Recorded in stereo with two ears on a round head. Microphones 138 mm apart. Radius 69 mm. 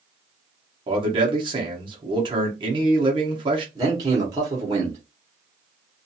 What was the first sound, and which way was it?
A man speaking, 30° right (ahead or behind).